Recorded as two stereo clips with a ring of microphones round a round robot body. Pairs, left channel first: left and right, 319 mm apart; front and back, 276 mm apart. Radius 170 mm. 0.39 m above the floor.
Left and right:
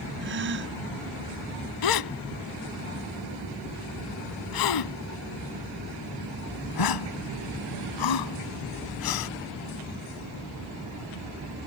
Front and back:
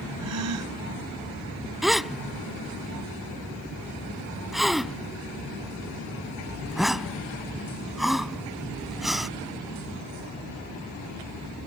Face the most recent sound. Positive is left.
turn(degrees=90)